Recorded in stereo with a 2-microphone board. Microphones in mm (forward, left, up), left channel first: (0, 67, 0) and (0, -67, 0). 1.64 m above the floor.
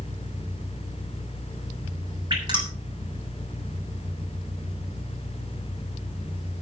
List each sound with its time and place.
2.3 s dripping: 35° right (ahead or behind), 7 m